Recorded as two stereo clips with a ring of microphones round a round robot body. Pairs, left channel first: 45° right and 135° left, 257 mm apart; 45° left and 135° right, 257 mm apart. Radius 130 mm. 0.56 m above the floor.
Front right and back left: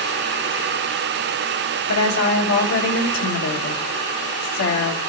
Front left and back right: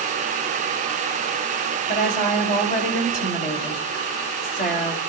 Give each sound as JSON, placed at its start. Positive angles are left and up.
{"t": 1.9, "sound": "a woman speaking", "azimuth_deg": -15, "distance_m": 2.0}